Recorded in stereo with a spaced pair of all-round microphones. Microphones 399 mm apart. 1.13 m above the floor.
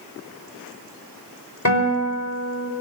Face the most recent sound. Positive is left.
turn(degrees=45)  # may be behind; listen again after turning